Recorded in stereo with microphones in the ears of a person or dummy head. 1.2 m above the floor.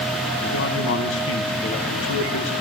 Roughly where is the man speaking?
Left.